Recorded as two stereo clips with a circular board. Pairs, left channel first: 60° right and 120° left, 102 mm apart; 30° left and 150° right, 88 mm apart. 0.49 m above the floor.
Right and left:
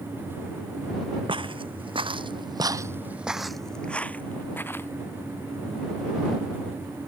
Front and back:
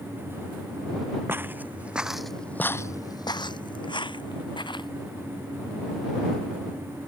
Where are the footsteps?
150° left; by 4.9 s 10° left.